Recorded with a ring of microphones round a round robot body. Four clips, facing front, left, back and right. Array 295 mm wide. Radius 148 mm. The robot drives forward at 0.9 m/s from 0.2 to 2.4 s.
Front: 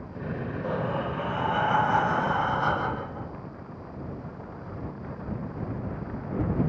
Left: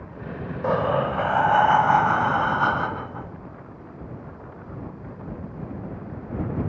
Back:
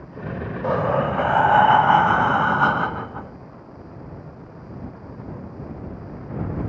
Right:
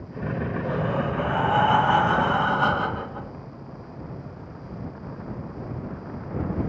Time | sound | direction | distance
0.6 | breathing | 130° left | 0.6 m